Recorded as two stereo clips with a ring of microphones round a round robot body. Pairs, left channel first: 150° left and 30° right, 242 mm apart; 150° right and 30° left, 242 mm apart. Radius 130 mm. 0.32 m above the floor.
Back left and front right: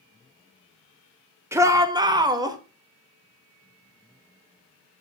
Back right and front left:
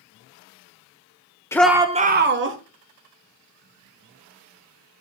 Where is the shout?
90° right, 0.9 m; by 2.6 s 40° left, 1.4 m.